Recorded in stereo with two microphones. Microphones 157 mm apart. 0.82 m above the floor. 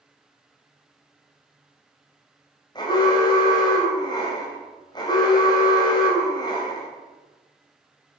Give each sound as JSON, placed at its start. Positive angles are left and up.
{"t": 2.8, "sound": "an alarm", "side_deg": 30, "distance_m": 3.0}